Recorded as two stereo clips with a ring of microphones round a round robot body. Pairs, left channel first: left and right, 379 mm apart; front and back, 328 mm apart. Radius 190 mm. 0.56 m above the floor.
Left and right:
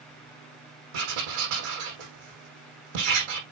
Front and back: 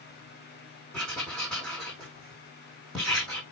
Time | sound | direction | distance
0.9 | writing | 90° right | 5 m